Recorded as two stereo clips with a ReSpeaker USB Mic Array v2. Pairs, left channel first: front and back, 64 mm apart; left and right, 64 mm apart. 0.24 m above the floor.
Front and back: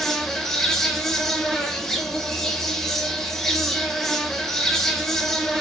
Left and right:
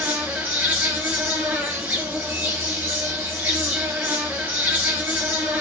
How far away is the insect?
About 0.8 m.